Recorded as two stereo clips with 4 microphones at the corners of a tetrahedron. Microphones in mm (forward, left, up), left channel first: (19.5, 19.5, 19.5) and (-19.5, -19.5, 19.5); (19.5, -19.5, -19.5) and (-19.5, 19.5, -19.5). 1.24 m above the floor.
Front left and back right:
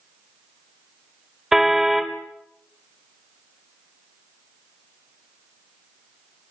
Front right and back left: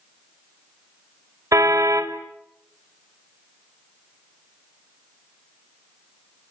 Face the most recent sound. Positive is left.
turn(degrees=145)